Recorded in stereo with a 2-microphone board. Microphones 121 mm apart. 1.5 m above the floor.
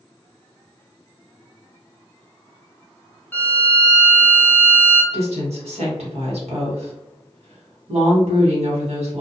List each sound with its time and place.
3.3 s a violin: 15° left (ahead or behind), 0.6 m
5.1 s a woman speaking: 65° right (ahead or behind), 1.4 m